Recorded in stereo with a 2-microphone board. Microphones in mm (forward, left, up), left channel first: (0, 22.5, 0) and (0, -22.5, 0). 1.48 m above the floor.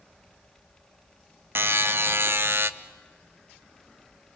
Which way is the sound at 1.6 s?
60° right (ahead or behind).